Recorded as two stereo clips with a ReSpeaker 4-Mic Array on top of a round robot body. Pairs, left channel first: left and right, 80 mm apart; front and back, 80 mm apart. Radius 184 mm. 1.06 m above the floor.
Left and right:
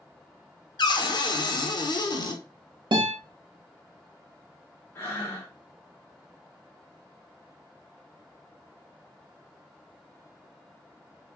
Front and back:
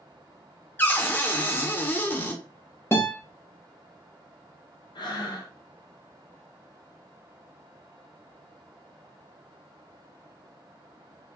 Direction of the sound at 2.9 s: 65° right.